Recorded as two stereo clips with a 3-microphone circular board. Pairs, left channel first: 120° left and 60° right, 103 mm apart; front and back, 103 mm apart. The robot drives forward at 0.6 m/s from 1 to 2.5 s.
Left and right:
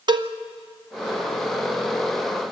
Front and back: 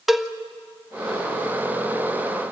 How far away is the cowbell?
About 0.7 m.